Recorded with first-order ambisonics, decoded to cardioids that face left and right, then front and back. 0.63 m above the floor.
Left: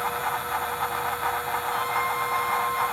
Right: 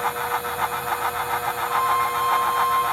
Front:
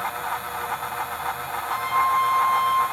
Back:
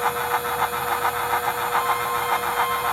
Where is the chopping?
No chopping in this recording.